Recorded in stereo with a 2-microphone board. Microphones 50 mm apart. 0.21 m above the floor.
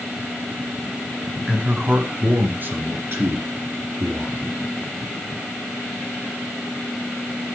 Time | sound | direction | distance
1.5 | a man speaking | 15° right (ahead or behind) | 1.2 m